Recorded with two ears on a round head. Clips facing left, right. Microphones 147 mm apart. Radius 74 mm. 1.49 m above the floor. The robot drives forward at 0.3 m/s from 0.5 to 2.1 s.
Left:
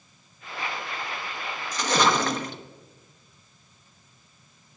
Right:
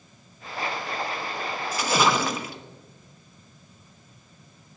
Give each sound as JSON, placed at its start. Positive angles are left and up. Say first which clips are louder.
{"t": 1.7, "sound": "a splash", "louder": "even", "side_deg": -5, "distance_m": 0.9}